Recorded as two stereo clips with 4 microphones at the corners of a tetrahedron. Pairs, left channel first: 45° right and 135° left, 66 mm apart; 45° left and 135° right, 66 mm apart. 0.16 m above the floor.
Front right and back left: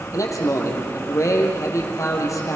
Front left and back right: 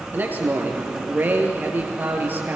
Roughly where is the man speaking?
Right.